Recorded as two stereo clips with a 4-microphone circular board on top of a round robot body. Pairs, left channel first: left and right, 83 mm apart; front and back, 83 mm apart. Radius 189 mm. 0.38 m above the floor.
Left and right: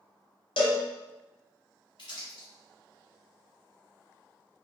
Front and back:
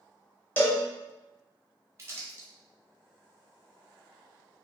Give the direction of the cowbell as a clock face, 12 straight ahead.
10 o'clock.